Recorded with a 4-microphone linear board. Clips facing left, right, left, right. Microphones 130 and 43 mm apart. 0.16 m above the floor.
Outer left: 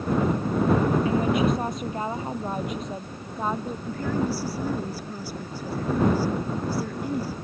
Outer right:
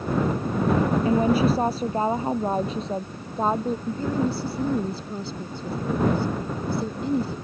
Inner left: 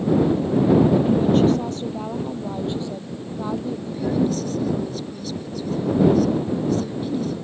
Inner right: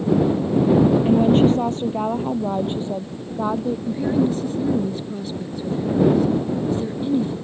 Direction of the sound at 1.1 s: 30° right (ahead or behind).